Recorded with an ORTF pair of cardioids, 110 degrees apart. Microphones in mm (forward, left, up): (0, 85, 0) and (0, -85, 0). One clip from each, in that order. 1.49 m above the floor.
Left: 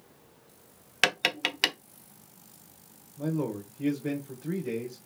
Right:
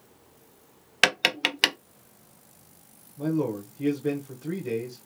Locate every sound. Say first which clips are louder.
1.0 s tapping: right 4 dB; 15° right, 0.6 m
3.2 s a man speaking: right 4 dB; 10° right, 1.3 m